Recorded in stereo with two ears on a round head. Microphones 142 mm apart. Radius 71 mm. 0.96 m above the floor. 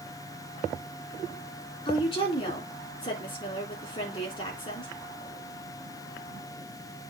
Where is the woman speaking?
30° left (ahead or behind), 3 m.